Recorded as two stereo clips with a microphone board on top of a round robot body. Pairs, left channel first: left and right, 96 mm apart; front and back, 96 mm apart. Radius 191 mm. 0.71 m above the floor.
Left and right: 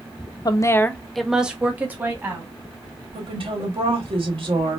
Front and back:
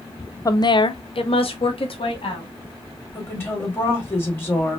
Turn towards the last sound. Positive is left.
turn(degrees=-65)